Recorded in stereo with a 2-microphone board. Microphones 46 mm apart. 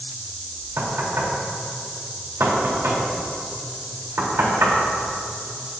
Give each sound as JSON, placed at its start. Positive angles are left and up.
{"t": 0.8, "sound": "knocking", "side_deg": -70, "distance_m": 3.0}